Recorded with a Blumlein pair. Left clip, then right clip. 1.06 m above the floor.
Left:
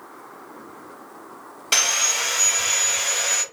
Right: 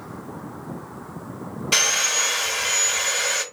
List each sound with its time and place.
1.7 s sawing: 10° left, 1.6 m